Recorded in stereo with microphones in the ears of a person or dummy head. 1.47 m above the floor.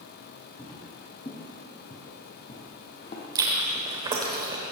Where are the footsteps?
20° left (ahead or behind), 4.5 m; by 3.2 s 35° left (ahead or behind), 3 m.